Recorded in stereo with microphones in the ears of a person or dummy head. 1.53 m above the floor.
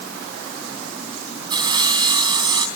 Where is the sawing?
25° right (ahead or behind), 3.5 m.